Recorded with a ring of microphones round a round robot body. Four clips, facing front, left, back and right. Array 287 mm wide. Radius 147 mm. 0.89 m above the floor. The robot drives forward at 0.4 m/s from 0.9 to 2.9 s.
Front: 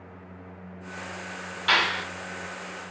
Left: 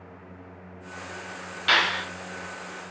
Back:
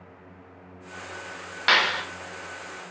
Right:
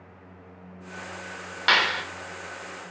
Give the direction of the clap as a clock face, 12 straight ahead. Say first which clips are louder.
Right 1 dB, back 2 dB; 5 o'clock.